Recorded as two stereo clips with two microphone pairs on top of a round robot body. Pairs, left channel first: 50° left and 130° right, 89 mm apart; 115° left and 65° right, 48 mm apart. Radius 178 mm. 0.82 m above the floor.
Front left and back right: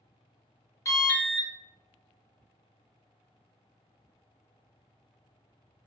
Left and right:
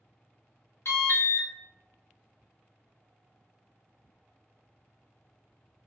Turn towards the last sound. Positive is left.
turn(degrees=110)